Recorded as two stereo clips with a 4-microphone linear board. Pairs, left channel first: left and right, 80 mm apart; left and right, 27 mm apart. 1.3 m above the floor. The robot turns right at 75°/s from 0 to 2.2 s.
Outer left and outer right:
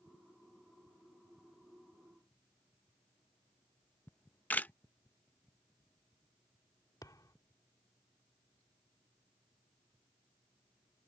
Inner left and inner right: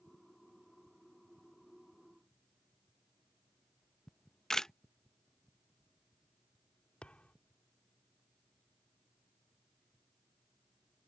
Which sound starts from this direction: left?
A thud, at 7.0 s.